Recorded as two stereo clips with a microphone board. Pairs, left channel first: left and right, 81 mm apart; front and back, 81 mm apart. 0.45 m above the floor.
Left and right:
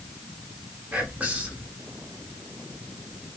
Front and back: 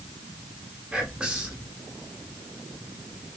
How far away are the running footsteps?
I don't hear running footsteps.